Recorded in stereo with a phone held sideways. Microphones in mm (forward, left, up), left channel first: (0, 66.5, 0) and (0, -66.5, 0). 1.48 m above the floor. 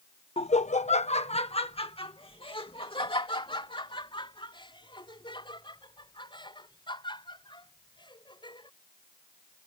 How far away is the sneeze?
I don't hear a sneeze.